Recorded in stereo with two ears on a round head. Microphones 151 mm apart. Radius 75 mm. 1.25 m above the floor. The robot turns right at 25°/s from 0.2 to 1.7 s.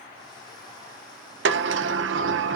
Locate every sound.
1.4 s a sliding door: 75° right (ahead or behind), 0.7 m; by 2.6 s 80° right, 0.7 m